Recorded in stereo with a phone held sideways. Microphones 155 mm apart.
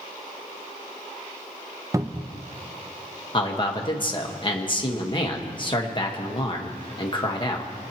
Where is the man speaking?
35° left (ahead or behind), 1.4 m.